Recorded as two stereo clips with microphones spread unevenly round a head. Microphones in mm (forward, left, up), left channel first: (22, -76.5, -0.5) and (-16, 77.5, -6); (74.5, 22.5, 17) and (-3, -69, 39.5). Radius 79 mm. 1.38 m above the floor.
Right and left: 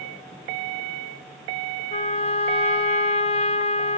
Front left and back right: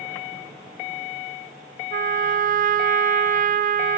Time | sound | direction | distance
1.9 | a trumpet | 130° right | 0.8 m